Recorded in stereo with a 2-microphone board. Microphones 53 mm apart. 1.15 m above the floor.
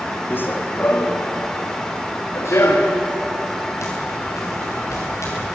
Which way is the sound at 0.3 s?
35° left (ahead or behind).